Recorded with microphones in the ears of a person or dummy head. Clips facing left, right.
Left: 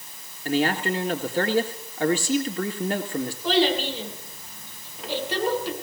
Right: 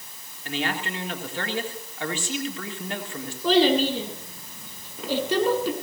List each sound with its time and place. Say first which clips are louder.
0.5 s a man speaking: left 6 dB; 35° left (ahead or behind), 3.5 m
3.4 s a child speaking: right 4 dB; 75° right (ahead or behind), 6.5 m